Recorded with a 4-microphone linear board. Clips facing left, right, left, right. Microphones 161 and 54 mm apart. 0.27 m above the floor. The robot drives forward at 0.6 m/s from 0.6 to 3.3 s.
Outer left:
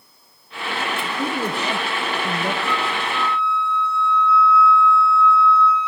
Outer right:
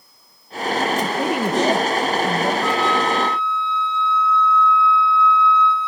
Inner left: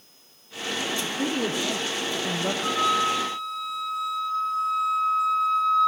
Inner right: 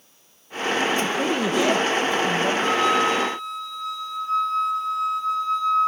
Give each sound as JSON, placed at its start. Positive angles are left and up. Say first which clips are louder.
{"t": 1.0, "sound": "a woman speaking", "louder": "outer right 4 dB, inner right 4 dB", "side_deg": -80, "distance_m": 7.5}
{"t": 2.6, "sound": "a flute", "louder": "outer right 5 dB, inner right 2 dB", "side_deg": -90, "distance_m": 8.5}